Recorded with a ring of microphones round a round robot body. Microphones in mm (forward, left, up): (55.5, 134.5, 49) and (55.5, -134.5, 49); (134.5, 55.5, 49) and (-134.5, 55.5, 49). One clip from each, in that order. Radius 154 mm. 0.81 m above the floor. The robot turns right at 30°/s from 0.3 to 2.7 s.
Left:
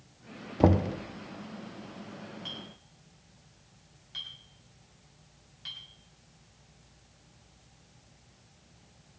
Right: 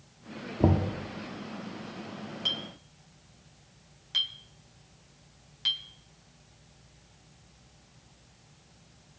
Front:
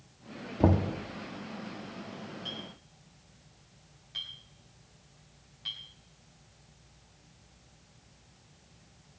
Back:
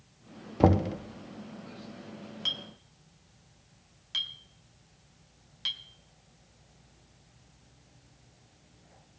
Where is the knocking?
130° left, 0.9 m; by 1.0 s 145° left, 0.9 m.